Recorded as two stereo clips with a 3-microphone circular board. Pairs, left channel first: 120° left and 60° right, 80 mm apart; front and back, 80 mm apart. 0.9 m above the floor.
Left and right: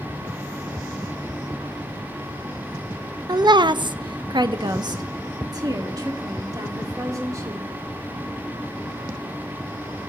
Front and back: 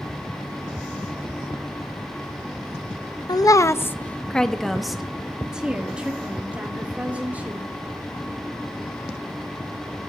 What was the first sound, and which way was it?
A woman speaking, 30° right.